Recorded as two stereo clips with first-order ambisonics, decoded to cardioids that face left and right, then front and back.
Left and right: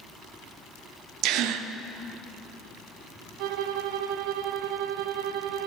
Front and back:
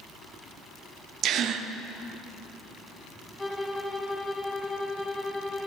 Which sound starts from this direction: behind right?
A gasp, at 1.2 s.